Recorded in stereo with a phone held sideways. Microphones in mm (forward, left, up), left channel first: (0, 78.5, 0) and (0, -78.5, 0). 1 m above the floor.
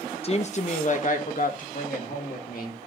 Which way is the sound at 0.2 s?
40° left (ahead or behind).